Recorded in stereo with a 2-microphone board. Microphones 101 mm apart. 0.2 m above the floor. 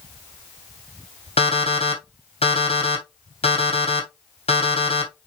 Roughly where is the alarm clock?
Left.